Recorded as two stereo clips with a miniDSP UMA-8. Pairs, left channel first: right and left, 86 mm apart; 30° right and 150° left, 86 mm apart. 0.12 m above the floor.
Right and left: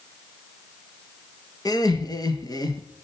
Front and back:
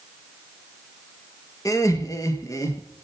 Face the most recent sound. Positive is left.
turn(degrees=-70)